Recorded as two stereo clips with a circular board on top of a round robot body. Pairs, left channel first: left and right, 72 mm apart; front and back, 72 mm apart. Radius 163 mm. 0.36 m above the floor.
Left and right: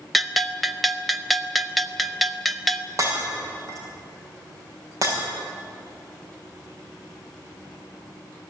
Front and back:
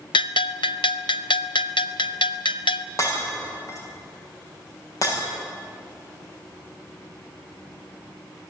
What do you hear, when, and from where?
0.1 s a bell: straight ahead, 0.6 m
3.0 s breaking glass: 45° right, 7 m